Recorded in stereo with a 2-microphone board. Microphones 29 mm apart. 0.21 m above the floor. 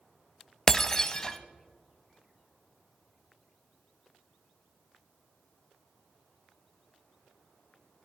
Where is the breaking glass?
20° left (ahead or behind), 0.6 m.